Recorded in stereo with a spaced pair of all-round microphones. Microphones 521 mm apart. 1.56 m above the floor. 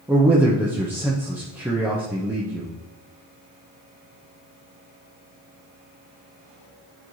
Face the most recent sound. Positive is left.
turn(degrees=-5)  # may be behind; listen again after turning